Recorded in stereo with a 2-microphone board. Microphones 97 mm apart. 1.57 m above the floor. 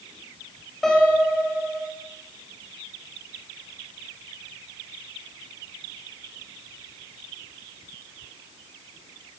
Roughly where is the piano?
Centre.